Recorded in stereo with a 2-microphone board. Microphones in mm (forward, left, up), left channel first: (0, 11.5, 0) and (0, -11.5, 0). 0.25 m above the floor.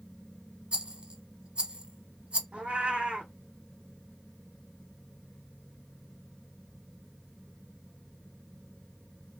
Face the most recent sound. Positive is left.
turn(degrees=-65)  # may be behind; listen again after turning